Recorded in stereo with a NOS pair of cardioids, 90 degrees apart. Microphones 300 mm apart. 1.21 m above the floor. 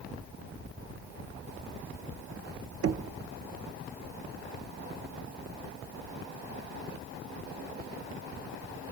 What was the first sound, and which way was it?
Knocking, 50° right.